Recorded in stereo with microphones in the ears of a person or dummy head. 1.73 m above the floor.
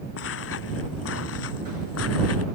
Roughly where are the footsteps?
Left.